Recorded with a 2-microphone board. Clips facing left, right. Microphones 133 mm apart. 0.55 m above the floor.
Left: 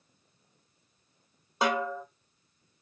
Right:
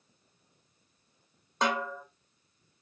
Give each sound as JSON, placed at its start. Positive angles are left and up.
{"t": 1.6, "sound": "a snare drum", "side_deg": 10, "distance_m": 1.2}